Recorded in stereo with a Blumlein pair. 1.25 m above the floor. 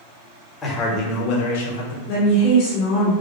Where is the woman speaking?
45° left, 1.0 m.